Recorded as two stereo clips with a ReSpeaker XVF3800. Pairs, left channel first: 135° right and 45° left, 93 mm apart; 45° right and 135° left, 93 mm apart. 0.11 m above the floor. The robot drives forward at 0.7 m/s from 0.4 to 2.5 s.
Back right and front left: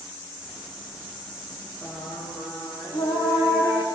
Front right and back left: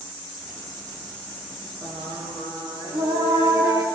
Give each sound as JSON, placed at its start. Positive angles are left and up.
{"t": 1.8, "sound": "singing", "azimuth_deg": 170, "distance_m": 8.0}